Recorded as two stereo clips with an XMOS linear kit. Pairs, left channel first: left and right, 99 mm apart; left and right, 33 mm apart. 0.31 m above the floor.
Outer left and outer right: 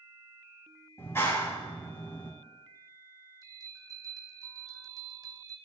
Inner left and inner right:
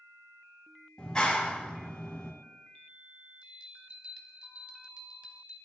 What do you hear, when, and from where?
1.0 s a clap: 25° left (ahead or behind), 2 m
3.4 s a bell: 35° right (ahead or behind), 0.9 m